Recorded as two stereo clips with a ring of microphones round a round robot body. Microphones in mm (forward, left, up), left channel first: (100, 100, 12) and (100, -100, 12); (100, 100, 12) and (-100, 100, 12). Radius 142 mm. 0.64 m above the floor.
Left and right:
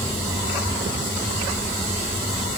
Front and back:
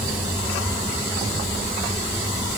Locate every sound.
Only background noise.